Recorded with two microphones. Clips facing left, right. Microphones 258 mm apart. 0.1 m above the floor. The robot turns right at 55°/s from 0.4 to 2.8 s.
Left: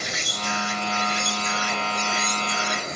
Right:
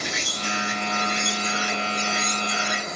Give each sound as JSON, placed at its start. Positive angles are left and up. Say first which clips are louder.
{"t": 0.0, "sound": "an insect", "louder": "right 1 dB", "azimuth_deg": -95, "distance_m": 2.5}